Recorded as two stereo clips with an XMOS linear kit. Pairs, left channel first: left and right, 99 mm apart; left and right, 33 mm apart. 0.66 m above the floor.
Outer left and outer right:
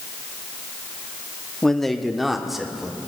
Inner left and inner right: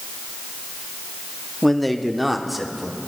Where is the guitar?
No guitar in this recording.